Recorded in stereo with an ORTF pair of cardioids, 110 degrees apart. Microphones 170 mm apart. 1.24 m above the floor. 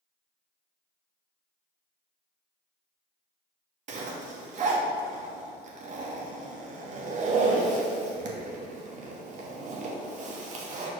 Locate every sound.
3.9 s a zipper: 45° right, 1.3 m